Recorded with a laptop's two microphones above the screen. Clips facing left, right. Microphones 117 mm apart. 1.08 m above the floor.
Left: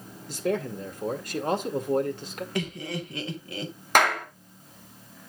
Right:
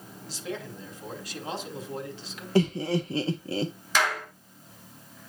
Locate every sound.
0.3 s a man speaking: 50° left (ahead or behind), 2 m
2.5 s laughter: 30° right (ahead or behind), 0.7 m
4.0 s a clap: 55° left (ahead or behind), 1.6 m